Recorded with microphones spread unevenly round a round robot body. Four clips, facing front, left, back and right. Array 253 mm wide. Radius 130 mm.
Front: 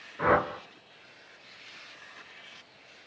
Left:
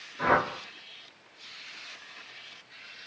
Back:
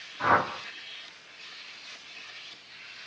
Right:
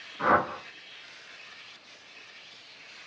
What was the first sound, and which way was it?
A whoosh, 20° left.